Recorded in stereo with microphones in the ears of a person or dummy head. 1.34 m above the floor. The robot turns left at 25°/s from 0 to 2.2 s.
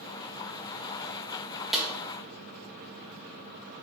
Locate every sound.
1.7 s a snare drum: 5° left (ahead or behind), 1.3 m; by 1.9 s centre (ahead or behind), 1.3 m